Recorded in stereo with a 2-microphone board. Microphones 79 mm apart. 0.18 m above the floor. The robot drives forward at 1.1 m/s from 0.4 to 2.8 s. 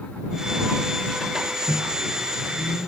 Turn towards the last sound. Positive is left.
turn(degrees=25)  # may be behind; listen again after turning